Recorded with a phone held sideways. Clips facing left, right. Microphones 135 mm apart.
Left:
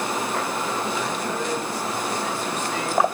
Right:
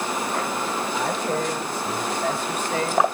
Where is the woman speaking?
75° right (ahead or behind), 4.5 m; by 3.1 s 50° right (ahead or behind), 3 m.